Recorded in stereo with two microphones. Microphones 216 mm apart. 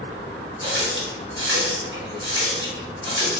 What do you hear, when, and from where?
0.6 s a running tap: 60° right (ahead or behind), 1.0 m